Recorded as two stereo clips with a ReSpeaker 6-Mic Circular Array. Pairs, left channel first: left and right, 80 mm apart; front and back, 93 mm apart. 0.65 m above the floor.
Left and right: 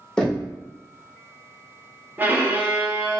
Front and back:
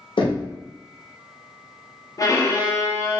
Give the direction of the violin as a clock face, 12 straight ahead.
1 o'clock.